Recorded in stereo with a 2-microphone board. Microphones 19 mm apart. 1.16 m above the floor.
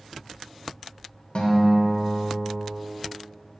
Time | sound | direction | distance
1.4 | a guitar | 60° left (ahead or behind) | 1.3 m